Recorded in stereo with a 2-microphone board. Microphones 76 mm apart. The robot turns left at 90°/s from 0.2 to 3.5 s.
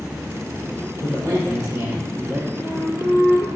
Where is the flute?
160° right, 4 m; by 3.5 s 115° left, 4 m.